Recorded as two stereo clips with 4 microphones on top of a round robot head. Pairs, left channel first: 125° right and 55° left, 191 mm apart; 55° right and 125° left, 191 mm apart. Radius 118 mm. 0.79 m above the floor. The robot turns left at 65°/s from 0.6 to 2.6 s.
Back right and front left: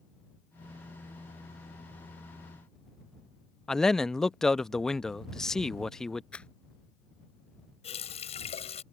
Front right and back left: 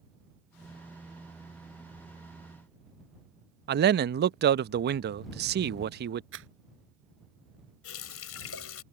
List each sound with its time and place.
3.7 s a man speaking: 150° left
6.3 s a rattle: 150° left
7.8 s a running tap: 65° right